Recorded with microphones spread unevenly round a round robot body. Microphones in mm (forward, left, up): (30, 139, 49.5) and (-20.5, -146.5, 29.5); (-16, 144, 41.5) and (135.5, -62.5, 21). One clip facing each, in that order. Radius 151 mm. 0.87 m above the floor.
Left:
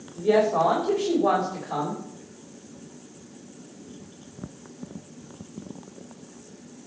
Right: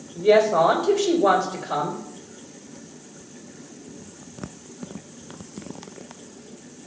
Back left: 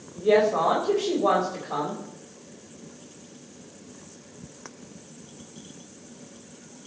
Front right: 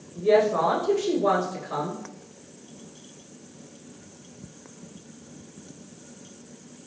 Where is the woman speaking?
120° right, 4 m.